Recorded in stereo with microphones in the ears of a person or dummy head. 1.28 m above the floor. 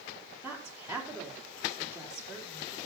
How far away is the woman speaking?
About 4 m.